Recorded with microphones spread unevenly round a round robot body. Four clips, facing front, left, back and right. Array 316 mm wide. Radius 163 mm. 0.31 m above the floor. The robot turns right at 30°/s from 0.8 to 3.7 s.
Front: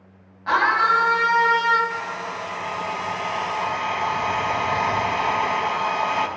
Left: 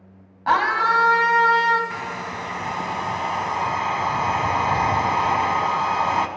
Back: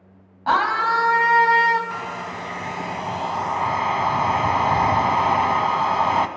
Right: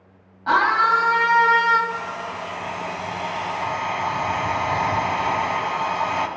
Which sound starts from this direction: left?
A hair dryer, at 1.9 s.